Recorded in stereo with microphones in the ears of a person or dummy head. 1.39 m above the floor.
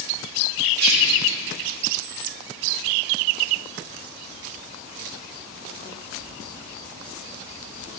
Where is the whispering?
45° right (ahead or behind), 3 m.